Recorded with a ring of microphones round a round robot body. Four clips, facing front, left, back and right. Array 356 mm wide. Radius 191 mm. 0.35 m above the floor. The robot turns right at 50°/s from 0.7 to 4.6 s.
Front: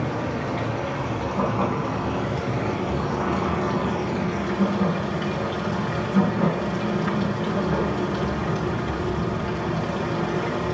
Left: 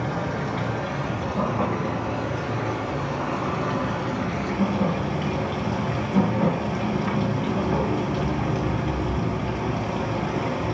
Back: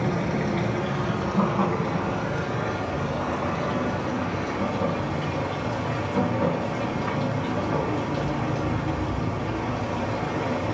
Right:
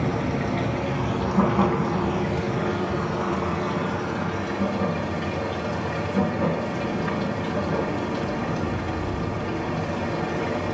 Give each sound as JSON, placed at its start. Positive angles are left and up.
{"t": 0.0, "sound": "running water", "azimuth_deg": -135, "distance_m": 3.0}